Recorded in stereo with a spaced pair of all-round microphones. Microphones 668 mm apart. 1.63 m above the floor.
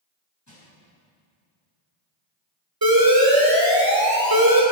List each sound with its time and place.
0.5 s crushing: 25° left (ahead or behind), 6.5 m
2.8 s an alarm: 30° right (ahead or behind), 3.5 m